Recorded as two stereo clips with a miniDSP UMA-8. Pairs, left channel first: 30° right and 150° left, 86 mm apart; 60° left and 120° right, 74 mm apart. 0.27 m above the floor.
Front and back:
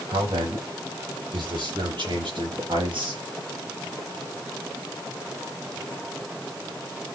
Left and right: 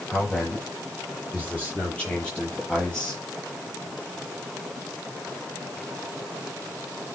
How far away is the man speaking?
About 9.5 m.